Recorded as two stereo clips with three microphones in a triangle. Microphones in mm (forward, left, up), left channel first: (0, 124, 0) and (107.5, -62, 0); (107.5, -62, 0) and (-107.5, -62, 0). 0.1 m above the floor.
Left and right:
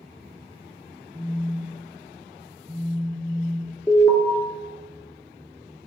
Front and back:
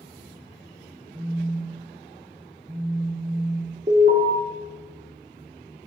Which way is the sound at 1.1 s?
120° right.